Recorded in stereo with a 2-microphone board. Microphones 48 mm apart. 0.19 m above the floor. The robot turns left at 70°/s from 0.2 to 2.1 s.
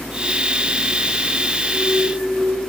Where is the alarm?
10° left (ahead or behind), 6 m; by 2.7 s 35° left (ahead or behind), 6 m.